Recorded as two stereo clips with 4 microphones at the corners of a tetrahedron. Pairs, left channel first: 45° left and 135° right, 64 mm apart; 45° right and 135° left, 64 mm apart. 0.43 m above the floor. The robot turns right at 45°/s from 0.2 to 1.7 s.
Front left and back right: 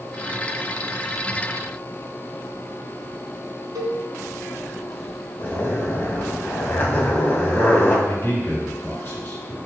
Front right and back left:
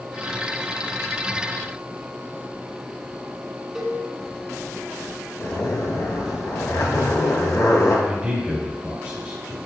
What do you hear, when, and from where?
3.8 s a cowbell: 140° right, 0.7 m
5.4 s a zipper: 10° right, 0.8 m
8.1 s a man speaking: 75° left, 1.7 m